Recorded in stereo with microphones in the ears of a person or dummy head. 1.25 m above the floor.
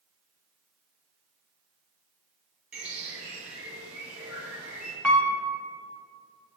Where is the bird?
10° right (ahead or behind), 2 m.